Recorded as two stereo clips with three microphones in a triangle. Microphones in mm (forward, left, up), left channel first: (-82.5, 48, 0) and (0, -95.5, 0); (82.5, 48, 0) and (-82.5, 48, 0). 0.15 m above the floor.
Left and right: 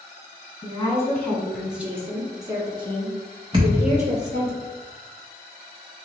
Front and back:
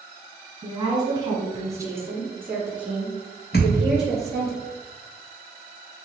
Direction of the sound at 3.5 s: Straight ahead.